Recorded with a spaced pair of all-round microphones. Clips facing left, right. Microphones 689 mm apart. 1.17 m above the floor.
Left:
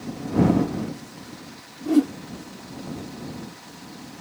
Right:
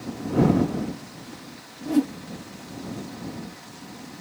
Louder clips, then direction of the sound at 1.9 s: Left 3 dB; 25° right (ahead or behind).